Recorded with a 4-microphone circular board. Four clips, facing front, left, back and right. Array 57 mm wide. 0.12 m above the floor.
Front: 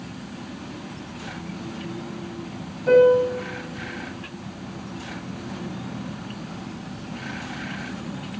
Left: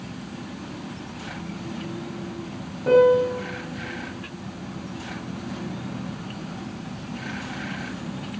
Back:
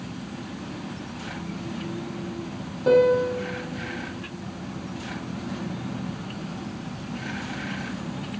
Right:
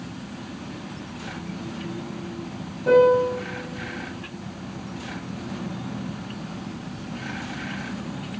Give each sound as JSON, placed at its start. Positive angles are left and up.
{"t": 2.9, "sound": "a piano", "azimuth_deg": 160, "distance_m": 4.5}